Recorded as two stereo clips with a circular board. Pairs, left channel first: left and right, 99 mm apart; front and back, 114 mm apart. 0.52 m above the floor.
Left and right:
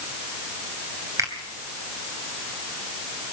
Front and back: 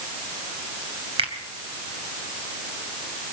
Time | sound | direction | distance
1.2 | a finger snap | 145° right | 2.5 m